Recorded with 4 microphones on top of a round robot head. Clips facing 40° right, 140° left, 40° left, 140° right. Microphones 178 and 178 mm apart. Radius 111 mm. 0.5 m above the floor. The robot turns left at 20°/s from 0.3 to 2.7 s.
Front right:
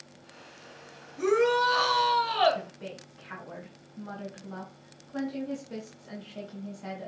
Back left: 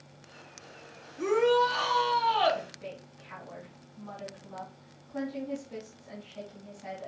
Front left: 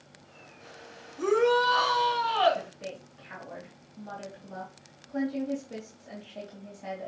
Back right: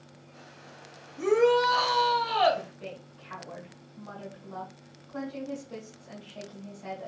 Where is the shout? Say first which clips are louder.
Even, back right 2 dB; 65° right, 3 m; by 2.6 s 95° right, 3 m.